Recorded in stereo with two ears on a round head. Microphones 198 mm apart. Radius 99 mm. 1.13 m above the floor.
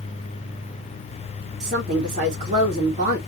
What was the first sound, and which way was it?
A woman speaking, 35° right (ahead or behind).